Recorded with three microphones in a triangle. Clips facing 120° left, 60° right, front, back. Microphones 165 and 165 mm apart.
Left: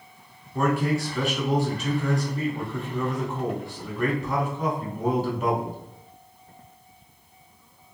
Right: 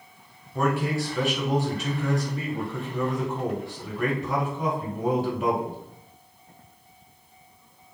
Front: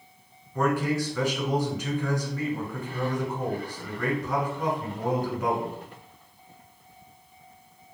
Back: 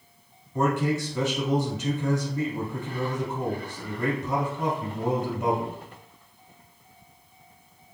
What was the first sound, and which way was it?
A man speaking, 150° right.